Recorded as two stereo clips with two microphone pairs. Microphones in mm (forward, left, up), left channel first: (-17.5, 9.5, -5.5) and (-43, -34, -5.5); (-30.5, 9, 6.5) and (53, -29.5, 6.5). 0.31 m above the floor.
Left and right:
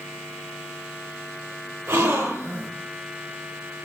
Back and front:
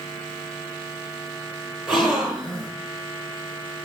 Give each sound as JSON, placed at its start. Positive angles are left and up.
{"t": 1.9, "sound": "a gasp", "azimuth_deg": -115, "distance_m": 8.5}